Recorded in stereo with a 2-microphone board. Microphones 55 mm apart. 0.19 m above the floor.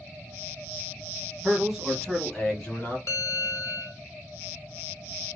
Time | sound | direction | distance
1.4 | a man speaking | 20° right (ahead or behind) | 1.2 m
3.1 | a bell | 50° left (ahead or behind) | 0.9 m